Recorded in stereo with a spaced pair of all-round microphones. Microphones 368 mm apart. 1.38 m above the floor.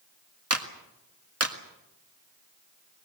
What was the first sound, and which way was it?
A clap, 40° right (ahead or behind).